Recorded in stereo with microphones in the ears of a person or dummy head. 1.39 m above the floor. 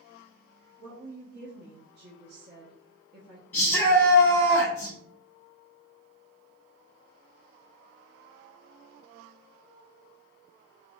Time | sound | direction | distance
0.8 | a woman speaking | 60° right (ahead or behind) | 1.0 m
3.5 | a shout | 10° left (ahead or behind) | 0.8 m